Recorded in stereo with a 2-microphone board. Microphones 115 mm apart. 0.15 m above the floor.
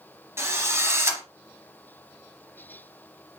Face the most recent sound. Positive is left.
turn(degrees=-25)  # may be behind; listen again after turning